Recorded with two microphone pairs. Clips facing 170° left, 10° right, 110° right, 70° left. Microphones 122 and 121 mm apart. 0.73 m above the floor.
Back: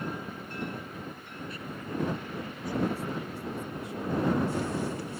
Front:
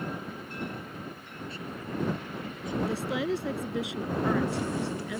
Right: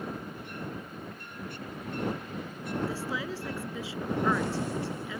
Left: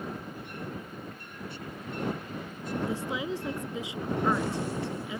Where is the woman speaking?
Straight ahead.